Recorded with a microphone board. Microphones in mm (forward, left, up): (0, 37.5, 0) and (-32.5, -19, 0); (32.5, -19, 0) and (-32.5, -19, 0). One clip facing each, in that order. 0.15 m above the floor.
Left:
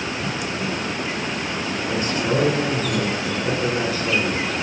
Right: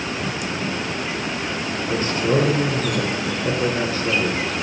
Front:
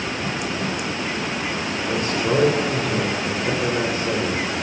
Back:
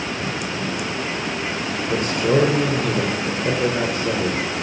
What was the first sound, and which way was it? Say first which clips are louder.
A man speaking: right 3 dB, back 3 dB; 175° right.